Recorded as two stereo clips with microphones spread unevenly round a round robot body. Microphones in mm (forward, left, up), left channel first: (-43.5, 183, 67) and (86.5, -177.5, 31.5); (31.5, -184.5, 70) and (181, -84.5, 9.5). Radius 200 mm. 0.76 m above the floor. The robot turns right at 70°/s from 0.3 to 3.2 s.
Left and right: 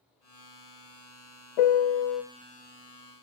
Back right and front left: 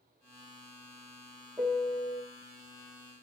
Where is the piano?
110° left, 0.7 m; by 2.2 s 155° left, 0.7 m.